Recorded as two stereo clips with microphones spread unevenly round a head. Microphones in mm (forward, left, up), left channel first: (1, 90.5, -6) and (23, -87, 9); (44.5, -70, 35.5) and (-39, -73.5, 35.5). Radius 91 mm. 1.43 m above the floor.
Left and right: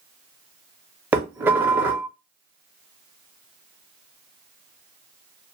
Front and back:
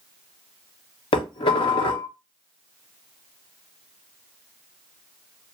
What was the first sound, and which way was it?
Dishes clattering, 5° right.